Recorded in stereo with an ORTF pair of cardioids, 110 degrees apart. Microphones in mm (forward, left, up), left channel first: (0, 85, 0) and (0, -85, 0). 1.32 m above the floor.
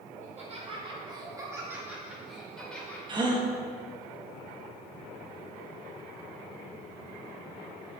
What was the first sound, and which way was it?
Laughter, 45° right.